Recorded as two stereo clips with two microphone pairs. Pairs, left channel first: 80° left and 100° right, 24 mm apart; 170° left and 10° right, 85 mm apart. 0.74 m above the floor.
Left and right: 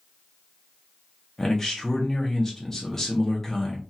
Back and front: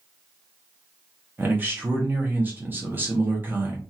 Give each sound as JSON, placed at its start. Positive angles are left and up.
{"t": 1.4, "sound": "a man speaking", "azimuth_deg": 30, "distance_m": 1.0}